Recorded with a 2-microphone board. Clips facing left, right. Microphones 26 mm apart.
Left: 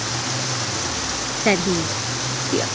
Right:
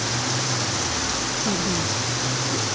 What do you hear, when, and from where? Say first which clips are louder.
1.4 s a woman speaking: left 8 dB; 85° left